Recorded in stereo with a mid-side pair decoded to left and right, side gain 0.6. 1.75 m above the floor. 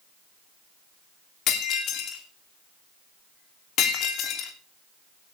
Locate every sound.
1.5 s breaking glass: 60° left, 3 m